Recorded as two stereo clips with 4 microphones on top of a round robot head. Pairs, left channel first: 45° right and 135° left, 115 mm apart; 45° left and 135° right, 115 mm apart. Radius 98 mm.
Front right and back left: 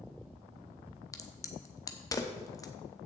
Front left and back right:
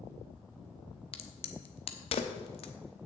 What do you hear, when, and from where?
1.1 s a crack: 15° left, 1.0 m